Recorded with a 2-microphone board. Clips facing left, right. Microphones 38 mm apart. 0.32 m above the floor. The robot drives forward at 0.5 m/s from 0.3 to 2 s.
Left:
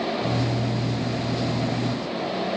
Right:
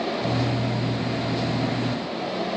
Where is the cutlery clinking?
No cutlery clinking in this recording.